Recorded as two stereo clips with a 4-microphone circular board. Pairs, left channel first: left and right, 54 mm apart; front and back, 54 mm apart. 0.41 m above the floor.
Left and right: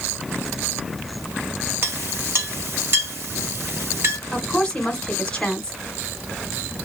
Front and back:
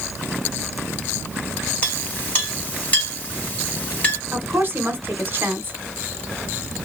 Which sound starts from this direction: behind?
A woman speaking, at 4.3 s.